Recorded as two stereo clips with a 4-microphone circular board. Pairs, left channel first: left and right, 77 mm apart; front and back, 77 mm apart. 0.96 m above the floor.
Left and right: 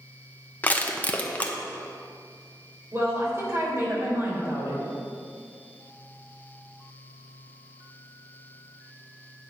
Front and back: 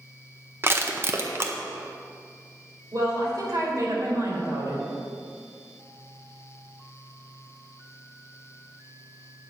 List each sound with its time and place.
0.6 s crushing: 145° left, 0.8 m
2.9 s a woman speaking: 145° right, 3 m